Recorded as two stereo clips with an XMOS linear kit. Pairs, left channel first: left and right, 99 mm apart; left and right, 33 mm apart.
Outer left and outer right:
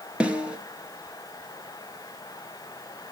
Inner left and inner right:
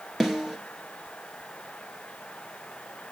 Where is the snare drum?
10° right (ahead or behind), 1.9 m.